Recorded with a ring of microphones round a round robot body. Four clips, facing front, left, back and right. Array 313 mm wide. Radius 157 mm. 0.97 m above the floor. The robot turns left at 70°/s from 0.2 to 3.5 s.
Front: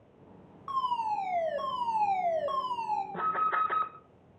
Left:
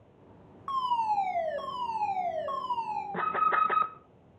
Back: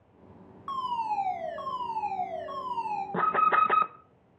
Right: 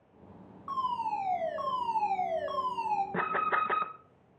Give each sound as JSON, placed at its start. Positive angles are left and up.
{"t": 0.7, "sound": "a fire alarm", "azimuth_deg": 105, "distance_m": 7.0}
{"t": 3.1, "sound": "an alarm", "azimuth_deg": -155, "distance_m": 1.5}